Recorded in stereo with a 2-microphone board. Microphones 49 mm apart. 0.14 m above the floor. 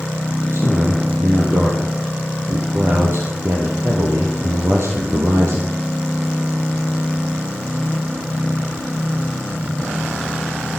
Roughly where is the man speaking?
Right.